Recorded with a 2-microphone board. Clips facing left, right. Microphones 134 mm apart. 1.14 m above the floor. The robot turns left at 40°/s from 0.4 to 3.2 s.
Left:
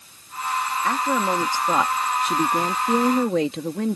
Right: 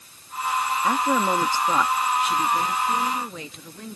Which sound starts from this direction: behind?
A woman speaking, at 0.8 s.